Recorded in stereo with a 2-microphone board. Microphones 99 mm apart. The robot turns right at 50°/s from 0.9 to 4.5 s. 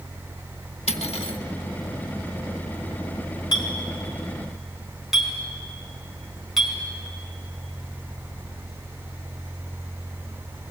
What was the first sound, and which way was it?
Cutlery clinking, 75° left (ahead or behind).